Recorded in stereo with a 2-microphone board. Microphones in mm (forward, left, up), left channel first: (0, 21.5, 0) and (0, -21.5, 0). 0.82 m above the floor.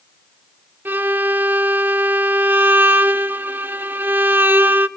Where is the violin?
50° right (ahead or behind), 0.6 m.